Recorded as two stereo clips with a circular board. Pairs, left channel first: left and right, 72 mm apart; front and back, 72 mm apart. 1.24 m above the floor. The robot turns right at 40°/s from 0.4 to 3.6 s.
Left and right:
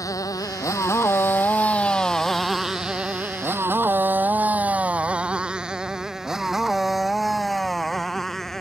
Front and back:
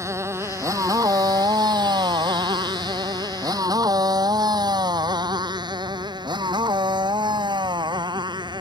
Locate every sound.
0.0 s a motorcycle: 130° left; by 8.6 s 175° left